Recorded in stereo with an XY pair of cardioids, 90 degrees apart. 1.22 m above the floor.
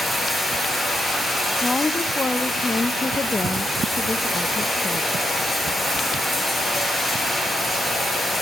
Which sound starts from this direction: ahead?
Running water, at 0.0 s.